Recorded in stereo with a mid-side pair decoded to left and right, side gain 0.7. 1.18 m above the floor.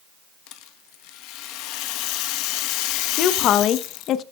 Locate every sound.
0.5 s a rattle: 65° left, 1.1 m
3.2 s a woman speaking: 50° left, 0.9 m